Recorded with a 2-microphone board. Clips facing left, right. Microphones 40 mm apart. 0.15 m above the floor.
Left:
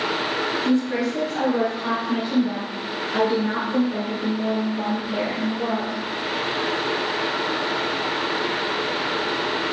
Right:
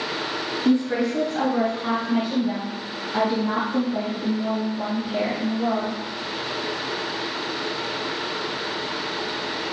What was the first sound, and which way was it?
A woman speaking, 15° right (ahead or behind).